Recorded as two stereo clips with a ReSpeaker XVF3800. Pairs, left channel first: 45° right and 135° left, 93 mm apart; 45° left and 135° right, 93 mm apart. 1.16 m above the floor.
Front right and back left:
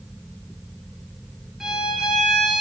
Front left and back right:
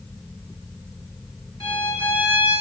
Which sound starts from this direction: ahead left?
A violin, at 1.6 s.